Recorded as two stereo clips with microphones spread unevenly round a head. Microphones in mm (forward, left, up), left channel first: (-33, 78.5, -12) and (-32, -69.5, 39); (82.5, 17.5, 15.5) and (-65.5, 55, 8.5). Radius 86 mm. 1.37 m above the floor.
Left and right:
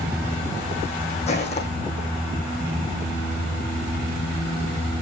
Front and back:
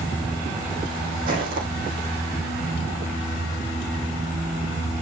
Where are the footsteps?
140° left, 3.5 m.